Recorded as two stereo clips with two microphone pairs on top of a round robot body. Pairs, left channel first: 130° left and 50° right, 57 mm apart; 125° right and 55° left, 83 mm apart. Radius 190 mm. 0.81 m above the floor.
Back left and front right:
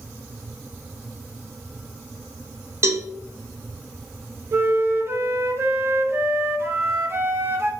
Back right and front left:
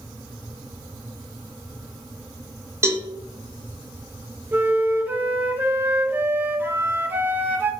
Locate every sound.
2.8 s a cowbell: 10° right, 0.6 m
4.5 s a flute: 15° right, 0.8 m